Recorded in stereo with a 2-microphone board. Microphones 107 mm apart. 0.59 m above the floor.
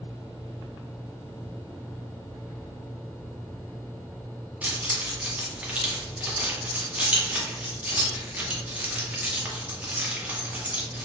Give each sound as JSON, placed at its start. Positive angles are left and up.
{"t": 4.6, "sound": "keys jangling", "side_deg": -15, "distance_m": 0.6}